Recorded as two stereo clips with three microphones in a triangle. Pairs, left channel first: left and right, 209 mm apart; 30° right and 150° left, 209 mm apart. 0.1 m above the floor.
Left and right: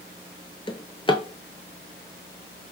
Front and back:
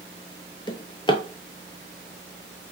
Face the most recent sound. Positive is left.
turn(degrees=30)